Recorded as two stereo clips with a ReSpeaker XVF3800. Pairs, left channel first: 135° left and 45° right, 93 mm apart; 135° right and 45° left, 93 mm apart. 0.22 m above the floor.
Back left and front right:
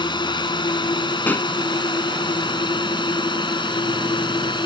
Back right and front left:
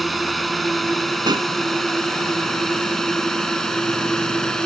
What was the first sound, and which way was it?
A drone, 135° left.